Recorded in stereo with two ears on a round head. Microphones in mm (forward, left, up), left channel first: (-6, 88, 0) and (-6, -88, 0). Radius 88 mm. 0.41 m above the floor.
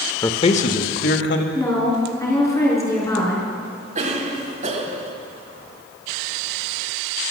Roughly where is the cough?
Right.